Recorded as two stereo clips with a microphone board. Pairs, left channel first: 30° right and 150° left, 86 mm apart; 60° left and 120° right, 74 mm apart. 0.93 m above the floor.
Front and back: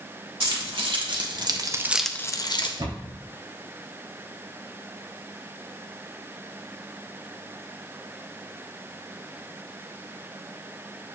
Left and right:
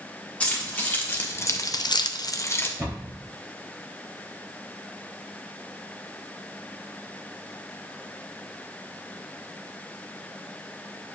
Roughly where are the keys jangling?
Behind left.